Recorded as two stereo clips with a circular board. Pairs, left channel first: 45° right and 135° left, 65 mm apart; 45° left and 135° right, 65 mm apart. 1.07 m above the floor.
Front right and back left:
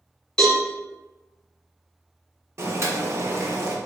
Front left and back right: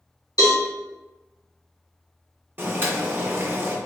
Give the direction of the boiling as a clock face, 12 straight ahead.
6 o'clock.